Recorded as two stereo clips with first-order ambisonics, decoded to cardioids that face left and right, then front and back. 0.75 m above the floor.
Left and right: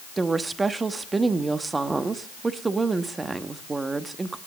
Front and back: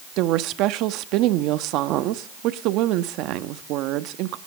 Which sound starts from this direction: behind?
A woman speaking, at 0.2 s.